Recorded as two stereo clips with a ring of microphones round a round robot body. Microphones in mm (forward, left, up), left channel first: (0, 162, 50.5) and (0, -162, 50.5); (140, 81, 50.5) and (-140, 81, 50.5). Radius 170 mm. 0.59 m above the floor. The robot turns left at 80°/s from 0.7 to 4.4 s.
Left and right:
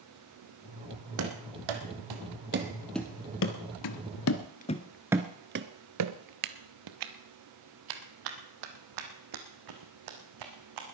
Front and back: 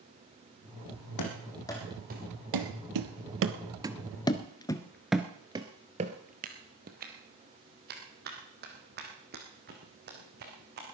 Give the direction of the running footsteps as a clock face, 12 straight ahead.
1 o'clock.